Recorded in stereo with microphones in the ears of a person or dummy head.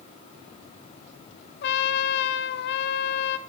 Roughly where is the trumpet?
Left.